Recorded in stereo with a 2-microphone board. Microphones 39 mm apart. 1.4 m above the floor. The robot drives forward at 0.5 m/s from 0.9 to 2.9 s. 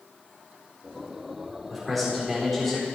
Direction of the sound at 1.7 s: Centre (ahead or behind).